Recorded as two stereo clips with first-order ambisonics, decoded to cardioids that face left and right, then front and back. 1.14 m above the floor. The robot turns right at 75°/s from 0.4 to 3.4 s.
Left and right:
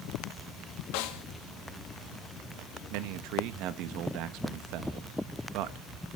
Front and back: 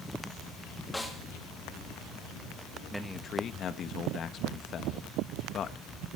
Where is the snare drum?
85° left, 1.8 m; by 1.2 s 105° left, 1.8 m.